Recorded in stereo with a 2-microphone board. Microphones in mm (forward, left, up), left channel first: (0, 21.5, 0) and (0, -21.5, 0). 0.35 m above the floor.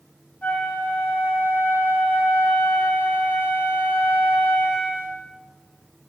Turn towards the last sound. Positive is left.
turn(degrees=25)  # may be behind; listen again after turning